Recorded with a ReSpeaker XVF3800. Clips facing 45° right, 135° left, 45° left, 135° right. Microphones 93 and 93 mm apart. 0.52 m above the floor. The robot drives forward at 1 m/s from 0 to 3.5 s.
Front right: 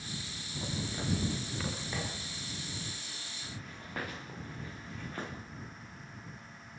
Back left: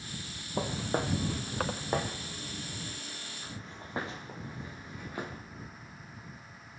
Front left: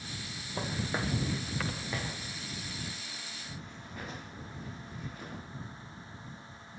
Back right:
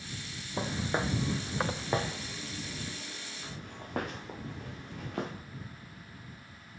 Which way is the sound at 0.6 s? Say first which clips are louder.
Back left 7 dB, back right 3 dB; 145° left.